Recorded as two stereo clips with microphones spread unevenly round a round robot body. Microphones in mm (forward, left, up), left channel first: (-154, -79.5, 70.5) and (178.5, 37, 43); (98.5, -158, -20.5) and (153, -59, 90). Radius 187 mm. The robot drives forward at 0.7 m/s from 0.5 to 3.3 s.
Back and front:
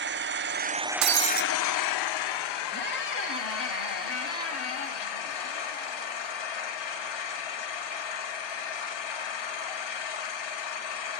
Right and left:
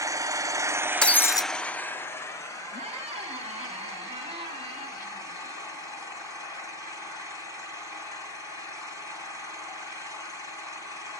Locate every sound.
0.0 s an engine running: 35° right, 0.8 m; by 11.2 s 165° right, 1.5 m
1.0 s breaking glass: 25° right, 0.7 m; by 1.5 s 45° right, 0.5 m
2.7 s a squeak: 135° left, 1.4 m; by 6.3 s 145° left, 1.7 m